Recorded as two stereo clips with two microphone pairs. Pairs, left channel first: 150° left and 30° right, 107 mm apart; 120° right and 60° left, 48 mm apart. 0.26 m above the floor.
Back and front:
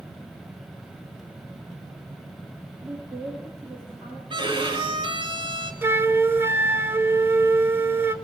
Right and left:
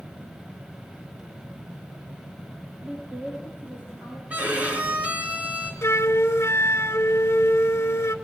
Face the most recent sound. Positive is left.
turn(degrees=-100)